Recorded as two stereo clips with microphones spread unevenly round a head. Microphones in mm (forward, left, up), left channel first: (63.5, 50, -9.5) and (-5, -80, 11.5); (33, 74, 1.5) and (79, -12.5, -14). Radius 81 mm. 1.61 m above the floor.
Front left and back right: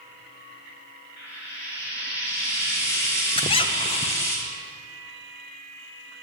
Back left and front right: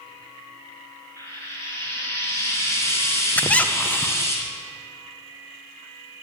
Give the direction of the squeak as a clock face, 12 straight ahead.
9 o'clock.